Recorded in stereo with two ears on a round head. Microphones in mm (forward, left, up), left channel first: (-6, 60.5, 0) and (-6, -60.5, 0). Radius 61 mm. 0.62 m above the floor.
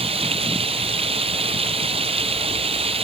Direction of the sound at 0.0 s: 45° right (ahead or behind).